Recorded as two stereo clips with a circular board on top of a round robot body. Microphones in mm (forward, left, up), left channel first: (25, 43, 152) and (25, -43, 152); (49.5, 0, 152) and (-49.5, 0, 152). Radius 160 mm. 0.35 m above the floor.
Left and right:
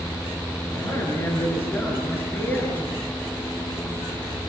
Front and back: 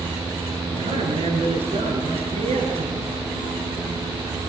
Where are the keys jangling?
No keys jangling in this recording.